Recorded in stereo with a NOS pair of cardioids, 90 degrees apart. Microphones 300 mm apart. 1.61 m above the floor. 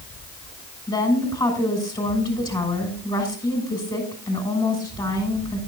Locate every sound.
0.9 s a woman speaking: 15° left, 5.5 m